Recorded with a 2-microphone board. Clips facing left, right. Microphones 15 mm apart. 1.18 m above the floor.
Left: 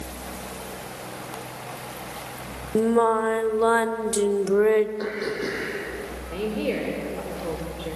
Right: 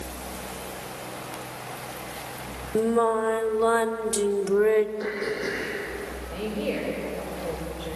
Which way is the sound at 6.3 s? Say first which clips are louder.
Left 3 dB; 85° left.